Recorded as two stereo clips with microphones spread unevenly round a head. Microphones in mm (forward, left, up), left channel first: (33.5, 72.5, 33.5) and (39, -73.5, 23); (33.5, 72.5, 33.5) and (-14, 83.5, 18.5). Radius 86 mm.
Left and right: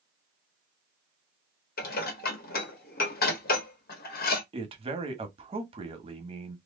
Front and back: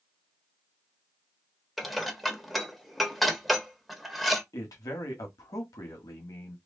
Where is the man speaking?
35° right, 1.3 m.